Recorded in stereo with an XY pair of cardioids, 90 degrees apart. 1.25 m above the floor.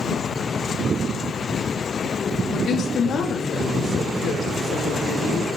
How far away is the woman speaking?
About 3 m.